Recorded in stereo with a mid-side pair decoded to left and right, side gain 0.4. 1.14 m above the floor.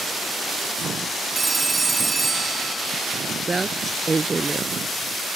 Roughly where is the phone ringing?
Ahead right.